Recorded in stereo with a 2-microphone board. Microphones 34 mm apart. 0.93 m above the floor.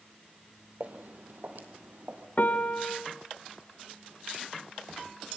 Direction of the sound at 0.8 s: 55° right (ahead or behind).